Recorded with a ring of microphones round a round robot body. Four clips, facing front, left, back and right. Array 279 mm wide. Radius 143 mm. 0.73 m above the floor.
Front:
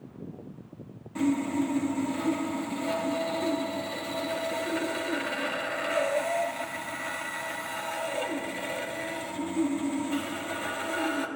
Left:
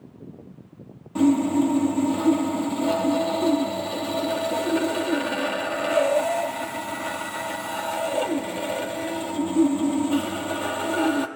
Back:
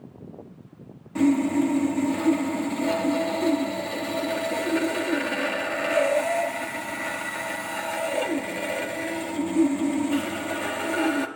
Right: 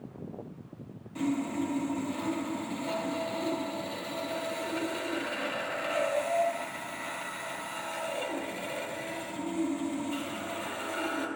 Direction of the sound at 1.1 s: 120° left.